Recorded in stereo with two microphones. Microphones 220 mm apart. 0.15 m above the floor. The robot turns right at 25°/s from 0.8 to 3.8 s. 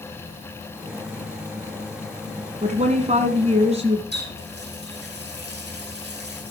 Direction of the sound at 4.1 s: 50° right (ahead or behind).